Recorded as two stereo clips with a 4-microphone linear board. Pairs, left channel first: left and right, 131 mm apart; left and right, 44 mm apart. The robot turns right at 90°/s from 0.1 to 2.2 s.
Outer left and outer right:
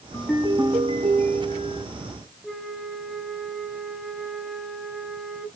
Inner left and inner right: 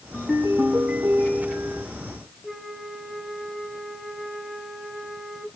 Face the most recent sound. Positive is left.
turn(degrees=0)  # may be behind; listen again after turning